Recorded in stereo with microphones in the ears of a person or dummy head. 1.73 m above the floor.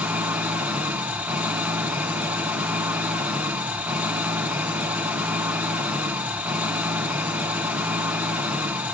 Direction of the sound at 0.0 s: 5° right (ahead or behind).